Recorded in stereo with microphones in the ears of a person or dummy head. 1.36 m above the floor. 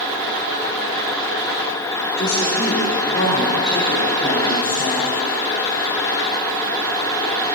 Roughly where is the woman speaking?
Left.